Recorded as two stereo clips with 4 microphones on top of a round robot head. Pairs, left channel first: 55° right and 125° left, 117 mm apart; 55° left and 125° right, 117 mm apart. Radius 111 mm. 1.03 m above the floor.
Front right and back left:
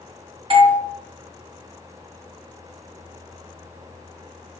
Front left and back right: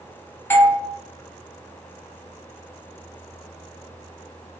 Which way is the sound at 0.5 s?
120° left.